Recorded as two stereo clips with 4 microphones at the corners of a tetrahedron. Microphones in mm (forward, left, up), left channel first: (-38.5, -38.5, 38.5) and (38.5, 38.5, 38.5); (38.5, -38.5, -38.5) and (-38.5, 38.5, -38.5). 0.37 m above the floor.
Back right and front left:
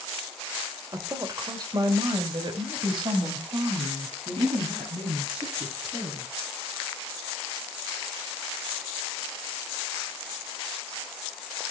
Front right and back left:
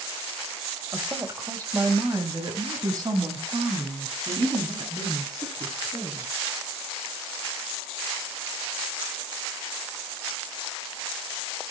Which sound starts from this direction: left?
A woman speaking, at 0.9 s.